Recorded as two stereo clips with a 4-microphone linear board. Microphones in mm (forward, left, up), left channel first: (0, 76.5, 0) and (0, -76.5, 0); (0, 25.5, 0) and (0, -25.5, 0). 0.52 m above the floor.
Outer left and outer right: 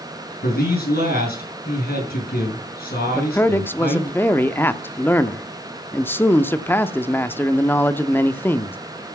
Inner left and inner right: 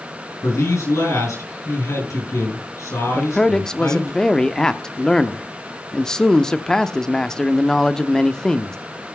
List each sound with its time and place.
0.4 s a man speaking: 85° left, 8 m
3.1 s a man speaking: 15° left (ahead or behind), 0.7 m